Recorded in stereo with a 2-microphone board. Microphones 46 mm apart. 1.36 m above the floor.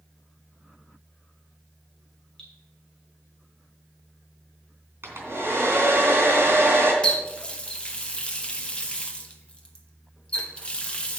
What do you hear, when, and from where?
2.4 s dripping: 15° left (ahead or behind), 3.5 m
5.0 s a hair dryer: 60° right (ahead or behind), 3 m
7.0 s a running tap: 20° left (ahead or behind), 1.1 m